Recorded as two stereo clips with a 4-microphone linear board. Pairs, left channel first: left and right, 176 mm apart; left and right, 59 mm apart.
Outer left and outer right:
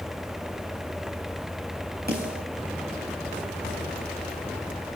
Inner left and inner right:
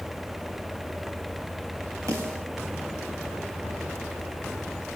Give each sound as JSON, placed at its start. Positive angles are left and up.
{"t": 2.1, "sound": "a snare drum", "side_deg": -65, "distance_m": 4.5}